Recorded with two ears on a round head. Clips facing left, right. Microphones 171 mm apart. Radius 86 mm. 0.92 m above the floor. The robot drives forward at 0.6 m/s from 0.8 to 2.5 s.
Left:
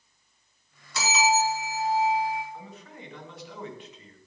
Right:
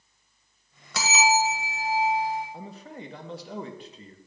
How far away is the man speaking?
About 1.1 m.